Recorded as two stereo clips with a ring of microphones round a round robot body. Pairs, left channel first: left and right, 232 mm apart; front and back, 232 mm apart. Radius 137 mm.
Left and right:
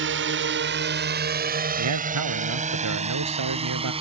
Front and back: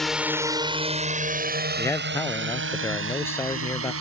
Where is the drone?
90° right; by 4.0 s 155° right.